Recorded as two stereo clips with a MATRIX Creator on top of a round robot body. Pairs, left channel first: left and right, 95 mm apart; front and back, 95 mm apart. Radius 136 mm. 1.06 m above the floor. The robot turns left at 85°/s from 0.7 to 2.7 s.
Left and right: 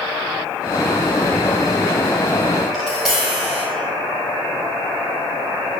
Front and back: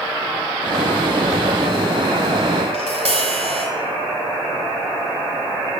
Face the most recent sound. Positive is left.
turn(degrees=-175)